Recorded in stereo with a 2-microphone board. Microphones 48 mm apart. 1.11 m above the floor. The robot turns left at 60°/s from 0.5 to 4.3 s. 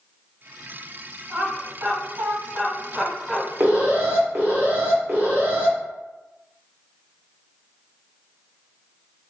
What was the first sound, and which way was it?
Laughter, 45° right (ahead or behind).